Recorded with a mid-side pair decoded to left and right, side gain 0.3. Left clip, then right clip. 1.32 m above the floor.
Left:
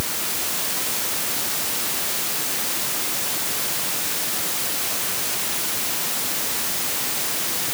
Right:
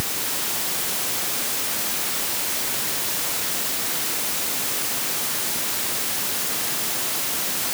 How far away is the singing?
No singing in this recording.